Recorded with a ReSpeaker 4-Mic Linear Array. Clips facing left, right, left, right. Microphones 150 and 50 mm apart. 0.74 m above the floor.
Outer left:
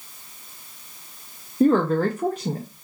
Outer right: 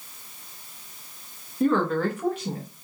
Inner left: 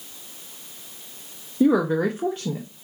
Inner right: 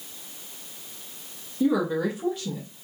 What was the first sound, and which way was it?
A woman speaking, 40° left (ahead or behind).